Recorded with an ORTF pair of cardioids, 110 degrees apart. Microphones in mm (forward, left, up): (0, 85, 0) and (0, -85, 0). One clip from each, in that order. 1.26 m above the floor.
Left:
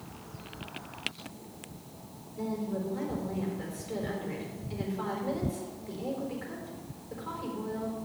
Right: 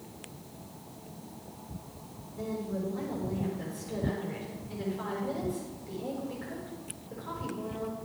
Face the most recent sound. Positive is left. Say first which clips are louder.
# left 1 dB
turn(degrees=20)